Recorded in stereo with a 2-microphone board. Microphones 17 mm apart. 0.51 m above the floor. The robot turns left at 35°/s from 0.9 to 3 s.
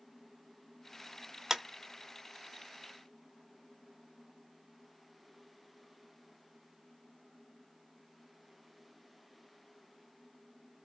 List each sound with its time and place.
1.5 s a clap: 25° right (ahead or behind), 0.6 m